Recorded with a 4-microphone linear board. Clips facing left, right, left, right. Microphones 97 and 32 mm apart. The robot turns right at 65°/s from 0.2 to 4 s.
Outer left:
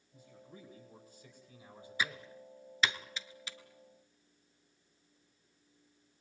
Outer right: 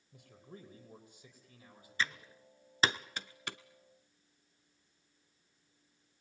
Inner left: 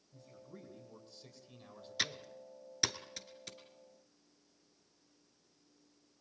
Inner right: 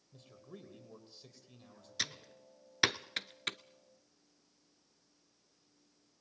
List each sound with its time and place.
0.1 s a man speaking: 80° right, 5.5 m; by 2.3 s 55° left, 5.5 m
2.0 s typing on a keyboard: 10° left (ahead or behind), 0.7 m; by 3.6 s 65° right (ahead or behind), 0.7 m